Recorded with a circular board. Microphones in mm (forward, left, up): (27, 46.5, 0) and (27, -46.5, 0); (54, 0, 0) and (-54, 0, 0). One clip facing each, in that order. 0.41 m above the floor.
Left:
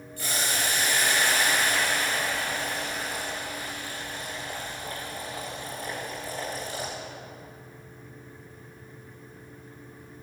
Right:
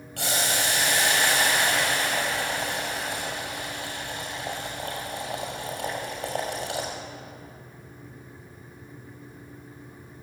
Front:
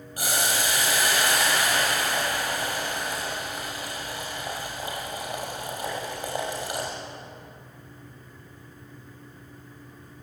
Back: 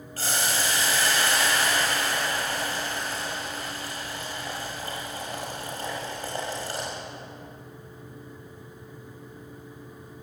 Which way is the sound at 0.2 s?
75° right.